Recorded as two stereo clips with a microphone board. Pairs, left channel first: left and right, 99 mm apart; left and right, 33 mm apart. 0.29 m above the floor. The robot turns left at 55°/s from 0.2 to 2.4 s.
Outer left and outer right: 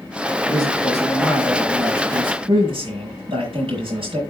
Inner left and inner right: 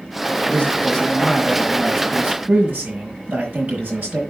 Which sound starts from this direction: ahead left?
A man speaking, at 0.5 s.